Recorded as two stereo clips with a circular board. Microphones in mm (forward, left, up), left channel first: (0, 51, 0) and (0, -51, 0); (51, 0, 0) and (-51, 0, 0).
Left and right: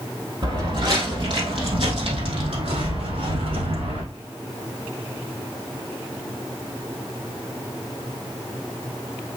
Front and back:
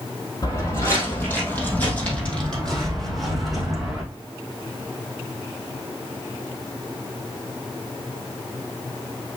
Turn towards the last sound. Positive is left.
turn(degrees=-95)